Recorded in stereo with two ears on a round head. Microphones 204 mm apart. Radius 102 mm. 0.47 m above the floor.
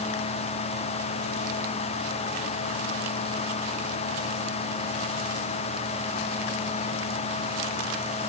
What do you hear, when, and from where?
Only background noise.